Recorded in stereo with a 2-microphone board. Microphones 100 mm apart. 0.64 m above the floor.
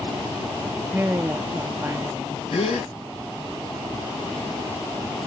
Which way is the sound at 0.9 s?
20° right (ahead or behind).